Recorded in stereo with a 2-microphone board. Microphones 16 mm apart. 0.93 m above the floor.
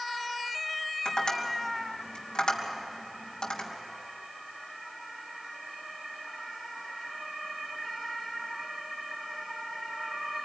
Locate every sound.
1.1 s tapping: 70° left (ahead or behind), 4 m